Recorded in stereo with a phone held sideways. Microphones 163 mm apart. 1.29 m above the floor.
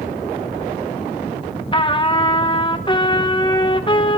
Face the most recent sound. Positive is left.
turn(degrees=30)  # may be behind; listen again after turning